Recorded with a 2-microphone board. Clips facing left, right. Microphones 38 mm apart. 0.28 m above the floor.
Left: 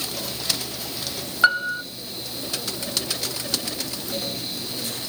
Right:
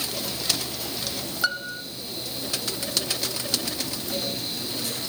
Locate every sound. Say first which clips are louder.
1.4 s a piano: left 9 dB; 35° left (ahead or behind), 0.7 m